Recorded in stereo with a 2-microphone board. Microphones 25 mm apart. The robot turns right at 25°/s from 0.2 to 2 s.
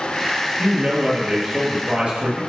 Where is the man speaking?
145° right, 2 m; by 2.4 s 110° right, 2 m.